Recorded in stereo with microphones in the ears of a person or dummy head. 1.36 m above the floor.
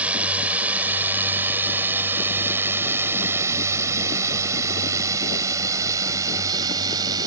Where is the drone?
10° right (ahead or behind); by 7.3 s 20° right (ahead or behind).